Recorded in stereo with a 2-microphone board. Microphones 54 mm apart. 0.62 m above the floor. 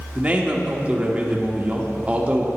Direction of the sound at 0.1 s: 25° right (ahead or behind).